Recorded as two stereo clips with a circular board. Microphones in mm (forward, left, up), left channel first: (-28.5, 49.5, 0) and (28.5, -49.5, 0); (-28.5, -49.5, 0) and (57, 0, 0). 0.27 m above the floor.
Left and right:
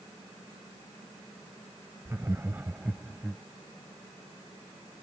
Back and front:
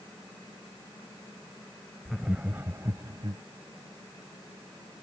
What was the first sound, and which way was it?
Laughter, 60° right.